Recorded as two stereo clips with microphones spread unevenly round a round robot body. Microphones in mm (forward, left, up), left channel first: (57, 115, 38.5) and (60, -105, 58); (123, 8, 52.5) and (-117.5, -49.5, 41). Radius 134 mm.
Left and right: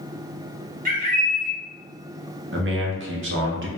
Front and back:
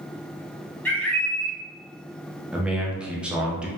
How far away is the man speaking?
About 1.0 m.